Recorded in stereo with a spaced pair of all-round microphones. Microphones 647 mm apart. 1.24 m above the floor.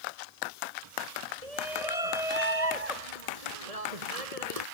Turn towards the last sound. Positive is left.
turn(degrees=-65)  # may be behind; listen again after turning